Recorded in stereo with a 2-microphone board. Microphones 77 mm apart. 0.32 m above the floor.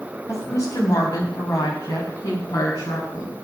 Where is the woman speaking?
45° left (ahead or behind), 1.6 m; by 3.4 s 60° left (ahead or behind), 3.5 m.